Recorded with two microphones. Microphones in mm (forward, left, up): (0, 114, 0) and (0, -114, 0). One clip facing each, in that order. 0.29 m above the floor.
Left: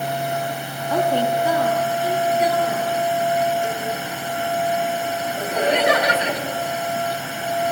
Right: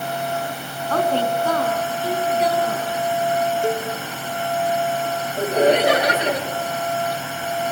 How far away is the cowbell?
About 3.5 m.